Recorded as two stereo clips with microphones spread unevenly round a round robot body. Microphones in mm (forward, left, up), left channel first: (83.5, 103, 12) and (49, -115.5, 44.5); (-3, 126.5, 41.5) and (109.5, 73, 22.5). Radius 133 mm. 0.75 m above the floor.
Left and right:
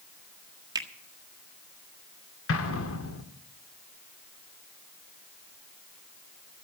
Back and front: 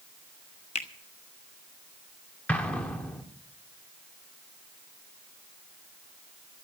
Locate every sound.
0.8 s a finger snap: 175° right, 1.1 m
2.5 s an explosion: 75° left, 1.9 m